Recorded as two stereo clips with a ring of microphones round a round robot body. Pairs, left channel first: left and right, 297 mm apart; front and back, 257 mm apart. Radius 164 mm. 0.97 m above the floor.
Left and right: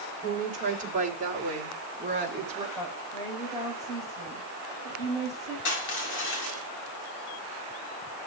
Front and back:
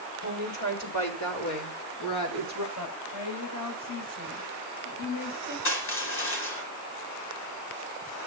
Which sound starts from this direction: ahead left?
Crushing, at 5.7 s.